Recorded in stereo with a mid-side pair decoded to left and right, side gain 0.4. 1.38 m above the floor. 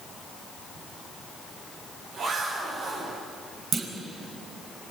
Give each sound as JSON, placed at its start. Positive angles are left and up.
{"t": 0.8, "sound": "a zipper", "azimuth_deg": -65, "distance_m": 9.0}
{"t": 3.7, "sound": "a clunk", "azimuth_deg": -60, "distance_m": 5.0}